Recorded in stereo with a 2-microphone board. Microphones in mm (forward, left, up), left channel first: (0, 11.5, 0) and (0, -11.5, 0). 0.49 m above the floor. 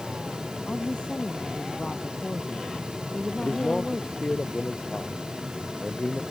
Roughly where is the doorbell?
I don't hear a doorbell.